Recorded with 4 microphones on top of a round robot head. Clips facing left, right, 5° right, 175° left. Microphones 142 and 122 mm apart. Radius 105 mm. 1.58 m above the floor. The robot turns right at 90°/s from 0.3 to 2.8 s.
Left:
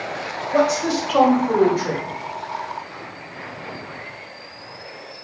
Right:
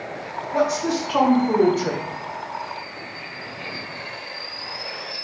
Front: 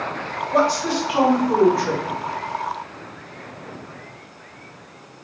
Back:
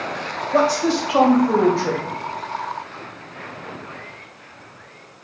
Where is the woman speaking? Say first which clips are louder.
Left 3 dB, back 2 dB; 110° left, 1.7 m; by 2.0 s 115° right, 1.7 m.